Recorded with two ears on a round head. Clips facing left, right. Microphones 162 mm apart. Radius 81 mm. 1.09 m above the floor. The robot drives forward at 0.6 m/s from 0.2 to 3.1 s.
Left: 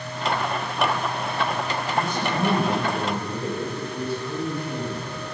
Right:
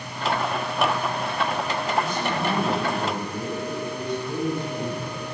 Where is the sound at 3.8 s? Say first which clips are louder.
Even; 5° left (ahead or behind), 7 m.